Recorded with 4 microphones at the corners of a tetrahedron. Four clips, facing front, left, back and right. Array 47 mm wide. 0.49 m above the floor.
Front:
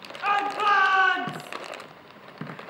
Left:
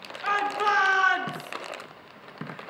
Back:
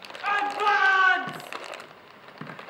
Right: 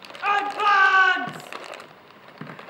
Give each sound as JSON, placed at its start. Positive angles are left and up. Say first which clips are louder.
{"t": 0.2, "sound": "a shout", "louder": "right 4 dB, front 1 dB", "azimuth_deg": -65, "distance_m": 5.5}